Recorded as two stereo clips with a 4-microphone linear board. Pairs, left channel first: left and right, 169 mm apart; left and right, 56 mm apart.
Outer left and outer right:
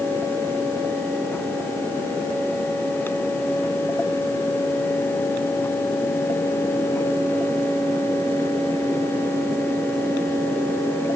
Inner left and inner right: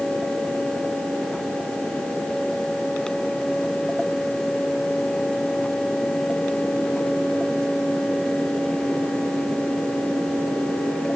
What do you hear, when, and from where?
Only background noise.